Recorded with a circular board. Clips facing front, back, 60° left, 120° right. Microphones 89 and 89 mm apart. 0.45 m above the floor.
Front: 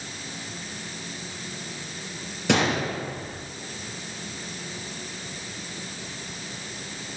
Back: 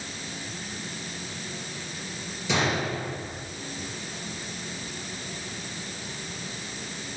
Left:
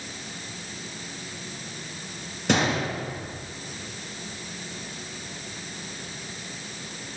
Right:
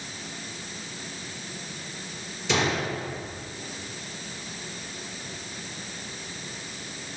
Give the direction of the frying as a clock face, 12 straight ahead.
I don't hear frying.